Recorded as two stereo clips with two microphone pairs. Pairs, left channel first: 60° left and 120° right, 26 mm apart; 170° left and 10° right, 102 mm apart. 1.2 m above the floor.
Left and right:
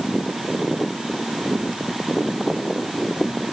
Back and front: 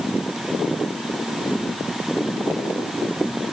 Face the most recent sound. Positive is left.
No sound to turn to.